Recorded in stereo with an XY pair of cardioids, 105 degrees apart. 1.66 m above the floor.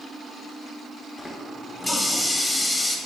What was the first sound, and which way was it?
A running tap, 20° left.